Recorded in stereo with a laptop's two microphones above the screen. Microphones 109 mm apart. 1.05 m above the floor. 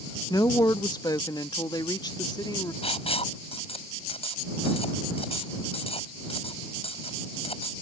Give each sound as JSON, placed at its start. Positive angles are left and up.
{"t": 0.3, "sound": "a woman speaking", "side_deg": 35}
{"t": 2.8, "sound": "writing", "side_deg": 65}